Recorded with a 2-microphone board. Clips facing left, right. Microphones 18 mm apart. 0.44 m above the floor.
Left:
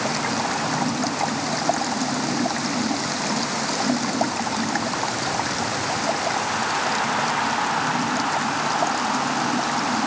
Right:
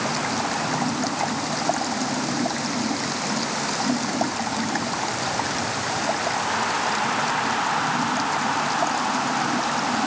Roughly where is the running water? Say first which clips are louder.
Left 1 dB; centre.